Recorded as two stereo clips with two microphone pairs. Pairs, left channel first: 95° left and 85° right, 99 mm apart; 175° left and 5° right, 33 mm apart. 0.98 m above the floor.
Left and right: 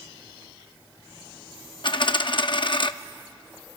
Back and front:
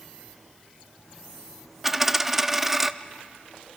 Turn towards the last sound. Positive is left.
turn(degrees=80)